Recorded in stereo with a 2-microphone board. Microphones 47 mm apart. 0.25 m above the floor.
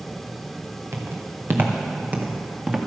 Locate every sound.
0.9 s footsteps: 60° right (ahead or behind), 2.5 m; by 2.8 s 15° right (ahead or behind), 2.5 m